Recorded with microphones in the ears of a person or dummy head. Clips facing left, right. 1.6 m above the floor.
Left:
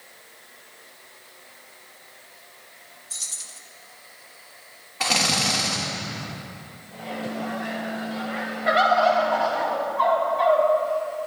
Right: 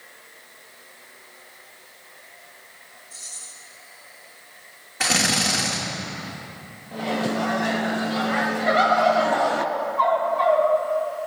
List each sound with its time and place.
3.1 s keys jangling: 55° left (ahead or behind), 1.5 m
5.0 s a drill: 25° right (ahead or behind), 2.5 m
6.9 s a microwave: 70° right (ahead or behind), 0.7 m
8.7 s a bird: 5° left (ahead or behind), 2.5 m